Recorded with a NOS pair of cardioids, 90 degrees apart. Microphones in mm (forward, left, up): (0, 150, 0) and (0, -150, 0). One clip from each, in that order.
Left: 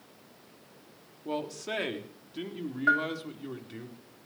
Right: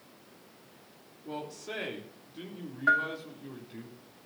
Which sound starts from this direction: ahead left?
A man speaking, at 1.2 s.